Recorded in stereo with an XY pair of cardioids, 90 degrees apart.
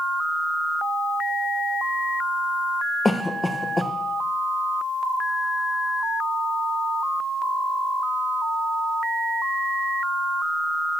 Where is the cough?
20° left, 0.9 m.